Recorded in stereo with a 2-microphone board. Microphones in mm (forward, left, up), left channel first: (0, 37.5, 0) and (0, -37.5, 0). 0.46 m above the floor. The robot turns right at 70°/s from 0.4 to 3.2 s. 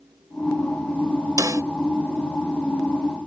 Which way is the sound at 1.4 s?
55° right (ahead or behind).